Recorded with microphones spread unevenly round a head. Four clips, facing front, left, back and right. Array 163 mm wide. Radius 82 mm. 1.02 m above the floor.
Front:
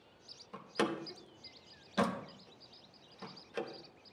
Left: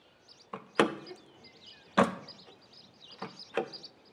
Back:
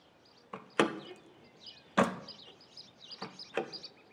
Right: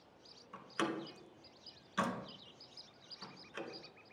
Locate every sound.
0.5 s a door slam: 115° left, 0.7 m